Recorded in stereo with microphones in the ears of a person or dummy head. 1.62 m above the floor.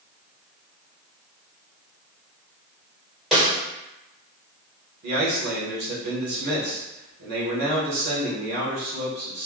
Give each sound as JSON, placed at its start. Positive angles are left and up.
{"t": 3.3, "sound": "a snare drum", "side_deg": 0, "distance_m": 1.1}
{"t": 5.0, "sound": "a man speaking", "side_deg": -55, "distance_m": 1.6}